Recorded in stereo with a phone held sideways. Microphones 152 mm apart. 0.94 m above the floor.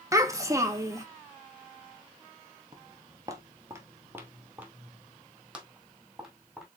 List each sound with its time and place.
0.1 s a child speaking: 20° right (ahead or behind), 0.8 m
2.7 s footsteps: 25° right (ahead or behind), 1.0 m; by 6.7 s 5° right (ahead or behind), 2.5 m